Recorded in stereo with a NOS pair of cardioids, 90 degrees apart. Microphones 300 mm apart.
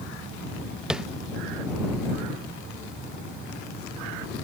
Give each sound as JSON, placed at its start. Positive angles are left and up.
{"t": 0.9, "sound": "tapping", "azimuth_deg": -5}